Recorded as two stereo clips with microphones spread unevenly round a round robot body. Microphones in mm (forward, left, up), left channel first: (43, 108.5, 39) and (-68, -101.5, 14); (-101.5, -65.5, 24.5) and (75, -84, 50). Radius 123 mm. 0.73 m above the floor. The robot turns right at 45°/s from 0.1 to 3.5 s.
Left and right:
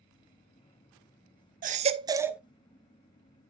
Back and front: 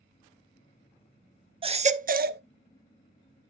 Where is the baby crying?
70° right, 0.6 m; by 2.4 s 35° right, 0.6 m.